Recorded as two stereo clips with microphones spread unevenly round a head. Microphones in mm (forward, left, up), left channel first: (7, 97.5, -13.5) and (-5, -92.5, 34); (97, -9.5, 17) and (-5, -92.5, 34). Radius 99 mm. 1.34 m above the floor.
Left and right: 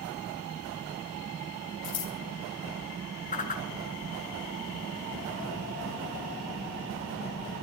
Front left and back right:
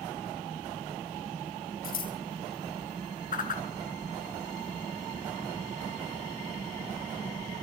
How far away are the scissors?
About 5 m.